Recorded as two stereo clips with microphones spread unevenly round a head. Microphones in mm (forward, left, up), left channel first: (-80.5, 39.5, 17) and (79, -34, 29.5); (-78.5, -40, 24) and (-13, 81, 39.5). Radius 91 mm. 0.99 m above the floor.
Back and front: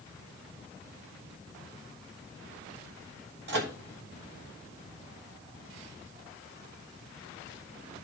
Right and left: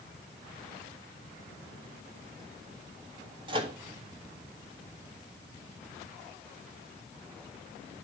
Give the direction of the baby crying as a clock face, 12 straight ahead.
I don't hear a baby crying.